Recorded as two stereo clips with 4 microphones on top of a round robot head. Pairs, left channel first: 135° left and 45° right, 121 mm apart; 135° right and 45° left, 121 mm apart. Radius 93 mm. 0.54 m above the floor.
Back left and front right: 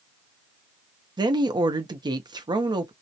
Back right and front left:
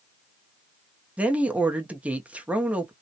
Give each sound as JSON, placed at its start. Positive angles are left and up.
{"t": 1.2, "sound": "a woman speaking", "azimuth_deg": -30, "distance_m": 0.7}